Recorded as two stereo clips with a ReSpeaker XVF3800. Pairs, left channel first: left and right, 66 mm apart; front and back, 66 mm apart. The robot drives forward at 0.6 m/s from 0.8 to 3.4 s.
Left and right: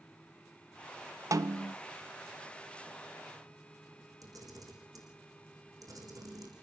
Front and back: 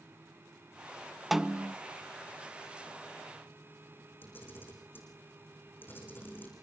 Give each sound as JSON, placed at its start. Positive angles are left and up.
{"t": 1.3, "sound": "a snare drum", "azimuth_deg": -95, "distance_m": 0.5}
{"t": 4.2, "sound": "a camera shutter", "azimuth_deg": -60, "distance_m": 6.5}